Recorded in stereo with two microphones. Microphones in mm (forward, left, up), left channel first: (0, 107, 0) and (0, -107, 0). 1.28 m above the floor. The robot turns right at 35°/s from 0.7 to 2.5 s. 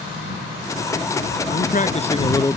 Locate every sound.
1.5 s a man speaking: 130° left; by 2.6 s 165° left